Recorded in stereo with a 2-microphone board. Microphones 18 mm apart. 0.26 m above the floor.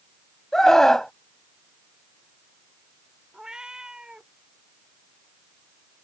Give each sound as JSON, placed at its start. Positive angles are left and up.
{"t": 0.5, "sound": "a scream", "side_deg": 30}
{"t": 3.3, "sound": "a cat meowing", "side_deg": -40}